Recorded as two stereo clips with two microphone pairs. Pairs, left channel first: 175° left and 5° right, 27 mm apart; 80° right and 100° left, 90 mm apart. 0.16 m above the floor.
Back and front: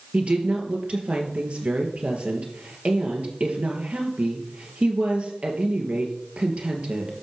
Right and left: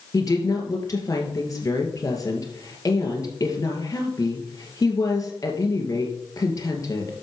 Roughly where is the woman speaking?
Ahead right.